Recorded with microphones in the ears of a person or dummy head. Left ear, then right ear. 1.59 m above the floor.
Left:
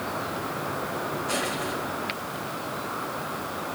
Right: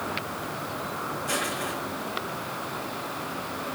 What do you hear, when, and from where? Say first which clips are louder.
1.3 s crushing: right 1 dB; 40° right (ahead or behind), 6 m